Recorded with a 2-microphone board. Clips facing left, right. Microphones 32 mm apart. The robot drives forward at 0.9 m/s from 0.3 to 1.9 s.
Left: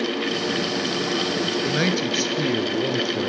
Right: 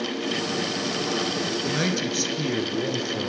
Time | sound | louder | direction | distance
1.6 | a man speaking | left 3 dB | 20° left (ahead or behind) | 1.2 m